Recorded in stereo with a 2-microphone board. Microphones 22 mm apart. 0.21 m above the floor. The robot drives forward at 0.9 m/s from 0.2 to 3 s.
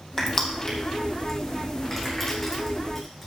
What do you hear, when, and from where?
0.2 s crushing: 20° left (ahead or behind), 2.5 m; by 3.3 s 10° left (ahead or behind), 5 m